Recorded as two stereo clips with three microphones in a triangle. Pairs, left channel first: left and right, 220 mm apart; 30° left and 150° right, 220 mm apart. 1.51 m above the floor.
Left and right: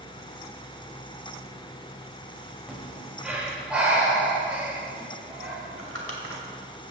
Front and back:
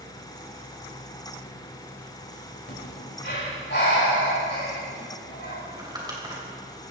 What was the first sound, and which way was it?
Breathing, 5° right.